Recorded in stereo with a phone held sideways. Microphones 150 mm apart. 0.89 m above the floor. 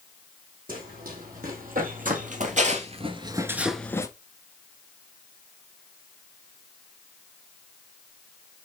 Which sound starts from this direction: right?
Running footsteps, at 0.7 s.